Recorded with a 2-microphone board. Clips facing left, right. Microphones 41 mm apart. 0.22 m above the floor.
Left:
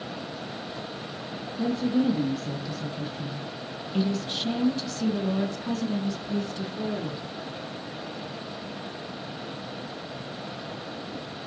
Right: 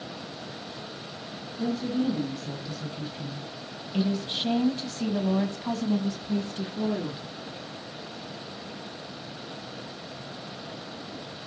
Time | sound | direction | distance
1.6 | a woman speaking | 10° left (ahead or behind) | 3 m